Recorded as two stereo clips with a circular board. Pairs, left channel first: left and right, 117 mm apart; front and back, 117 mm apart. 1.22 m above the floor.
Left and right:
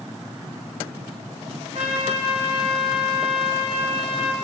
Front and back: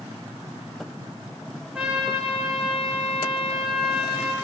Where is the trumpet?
100° right, 5.5 m.